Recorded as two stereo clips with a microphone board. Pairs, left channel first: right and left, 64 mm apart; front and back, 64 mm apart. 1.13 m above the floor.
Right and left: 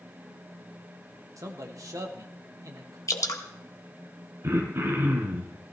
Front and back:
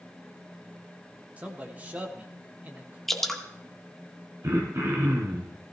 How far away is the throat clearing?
About 3 m.